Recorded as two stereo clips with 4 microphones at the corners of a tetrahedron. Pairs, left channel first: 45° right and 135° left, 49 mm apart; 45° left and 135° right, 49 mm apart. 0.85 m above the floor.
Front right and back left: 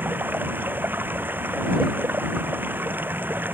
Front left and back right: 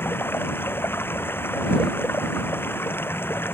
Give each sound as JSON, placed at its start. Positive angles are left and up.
{"t": 0.0, "sound": "running water", "azimuth_deg": 85}